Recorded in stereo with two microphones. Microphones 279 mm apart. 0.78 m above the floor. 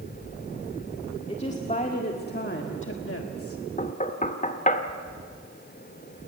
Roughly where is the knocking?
Left.